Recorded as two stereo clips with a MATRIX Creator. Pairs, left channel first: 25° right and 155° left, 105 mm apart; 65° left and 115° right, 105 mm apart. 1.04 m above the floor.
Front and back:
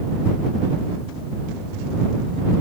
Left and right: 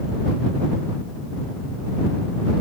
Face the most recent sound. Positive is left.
No sound to turn to.